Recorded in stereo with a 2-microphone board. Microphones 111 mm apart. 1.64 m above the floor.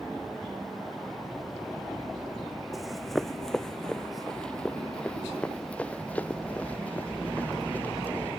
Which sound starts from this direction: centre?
Running footsteps, at 2.7 s.